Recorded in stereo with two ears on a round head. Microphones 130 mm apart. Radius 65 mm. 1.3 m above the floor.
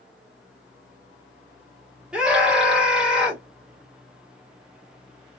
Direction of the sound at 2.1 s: 5° right (ahead or behind).